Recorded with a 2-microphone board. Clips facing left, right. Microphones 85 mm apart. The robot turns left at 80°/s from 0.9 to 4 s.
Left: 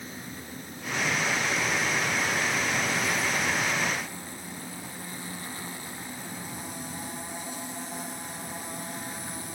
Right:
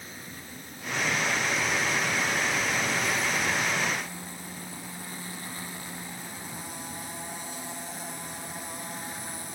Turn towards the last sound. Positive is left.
No sound to turn to.